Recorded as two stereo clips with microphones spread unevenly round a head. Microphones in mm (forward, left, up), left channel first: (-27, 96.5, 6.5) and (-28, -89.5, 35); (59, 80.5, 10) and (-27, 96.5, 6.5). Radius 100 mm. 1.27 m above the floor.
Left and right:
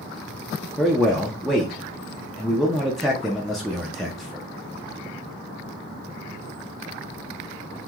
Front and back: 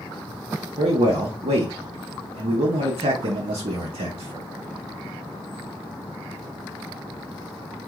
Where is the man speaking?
Straight behind, 0.5 m.